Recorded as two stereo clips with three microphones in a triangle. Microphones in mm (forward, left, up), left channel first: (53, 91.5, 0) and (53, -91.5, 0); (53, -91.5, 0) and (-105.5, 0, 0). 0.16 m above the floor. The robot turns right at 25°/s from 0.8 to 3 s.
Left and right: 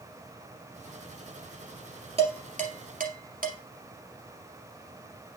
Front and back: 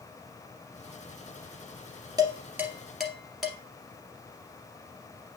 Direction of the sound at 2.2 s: 140° right.